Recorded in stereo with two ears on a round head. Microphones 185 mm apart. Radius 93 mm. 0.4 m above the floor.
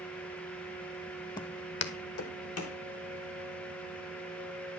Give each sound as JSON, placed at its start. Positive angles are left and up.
{"t": 1.4, "sound": "footsteps", "side_deg": 20, "distance_m": 0.8}